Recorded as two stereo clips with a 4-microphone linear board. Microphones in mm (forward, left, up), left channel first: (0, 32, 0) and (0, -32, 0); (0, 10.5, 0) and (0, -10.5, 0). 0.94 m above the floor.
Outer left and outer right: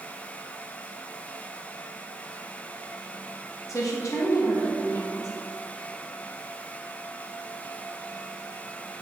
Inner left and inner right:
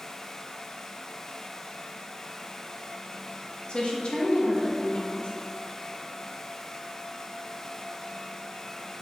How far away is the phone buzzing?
No phone buzzing in this recording.